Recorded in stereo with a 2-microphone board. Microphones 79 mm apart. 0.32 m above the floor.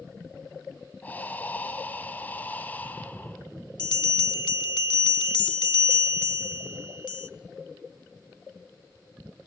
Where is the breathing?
20° left (ahead or behind), 1.5 m.